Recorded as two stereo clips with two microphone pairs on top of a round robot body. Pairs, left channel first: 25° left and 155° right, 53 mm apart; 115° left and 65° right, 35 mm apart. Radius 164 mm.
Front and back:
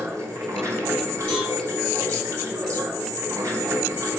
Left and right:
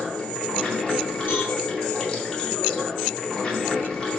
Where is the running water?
Straight behind, 3 m.